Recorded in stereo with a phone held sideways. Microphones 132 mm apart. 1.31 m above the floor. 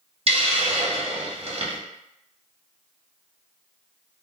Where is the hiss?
45° right (ahead or behind), 0.9 m.